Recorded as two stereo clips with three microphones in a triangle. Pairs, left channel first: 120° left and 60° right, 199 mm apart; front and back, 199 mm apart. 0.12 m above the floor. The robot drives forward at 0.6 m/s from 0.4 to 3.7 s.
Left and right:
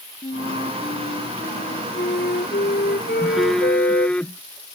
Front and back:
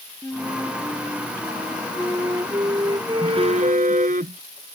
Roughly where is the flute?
Left.